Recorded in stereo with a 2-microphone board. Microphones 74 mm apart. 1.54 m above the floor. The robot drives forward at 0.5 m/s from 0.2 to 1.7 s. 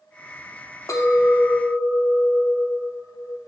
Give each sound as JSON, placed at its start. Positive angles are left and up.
{"t": 0.9, "sound": "a clink", "side_deg": 45, "distance_m": 0.6}